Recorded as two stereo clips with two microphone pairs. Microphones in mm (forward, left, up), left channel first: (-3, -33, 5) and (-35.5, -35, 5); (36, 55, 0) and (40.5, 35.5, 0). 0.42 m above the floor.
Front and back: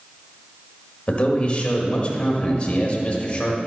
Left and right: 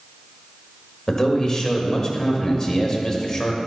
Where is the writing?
No writing in this recording.